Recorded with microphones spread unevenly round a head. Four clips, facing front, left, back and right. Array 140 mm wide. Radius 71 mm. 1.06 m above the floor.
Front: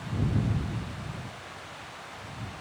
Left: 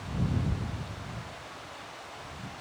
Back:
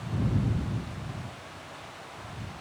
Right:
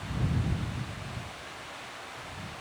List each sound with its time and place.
Only background noise.